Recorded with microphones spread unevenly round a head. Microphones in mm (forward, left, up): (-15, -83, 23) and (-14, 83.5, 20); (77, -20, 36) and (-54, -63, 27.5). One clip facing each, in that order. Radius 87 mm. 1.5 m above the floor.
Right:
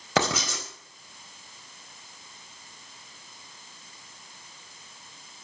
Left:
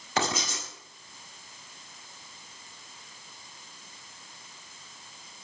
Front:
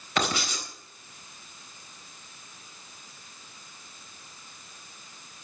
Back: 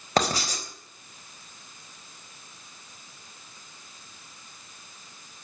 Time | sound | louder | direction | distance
0.2 | writing | right 4 dB, back 4 dB | 110° right | 4 m